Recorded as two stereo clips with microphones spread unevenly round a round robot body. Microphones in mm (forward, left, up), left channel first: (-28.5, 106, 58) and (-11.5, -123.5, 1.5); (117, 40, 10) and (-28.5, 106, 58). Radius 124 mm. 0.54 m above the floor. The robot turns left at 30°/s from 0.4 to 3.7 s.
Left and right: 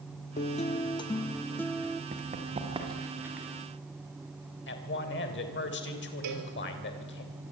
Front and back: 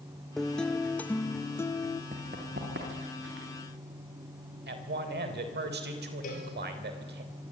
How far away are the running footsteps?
About 5 m.